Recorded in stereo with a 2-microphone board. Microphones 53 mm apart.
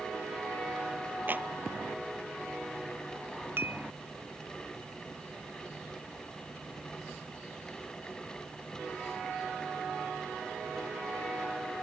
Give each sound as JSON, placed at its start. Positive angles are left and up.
{"t": 1.3, "sound": "a clap", "side_deg": -35}
{"t": 3.6, "sound": "dishes clattering", "side_deg": -45}